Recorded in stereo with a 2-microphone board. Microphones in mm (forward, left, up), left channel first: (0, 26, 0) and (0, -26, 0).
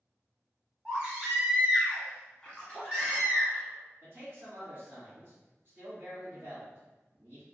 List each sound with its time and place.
0.8 s a baby crying: 20° right (ahead or behind), 1.2 m
2.4 s a splash: 20° left (ahead or behind), 1.0 m
4.0 s a man speaking: 45° right (ahead or behind), 1.7 m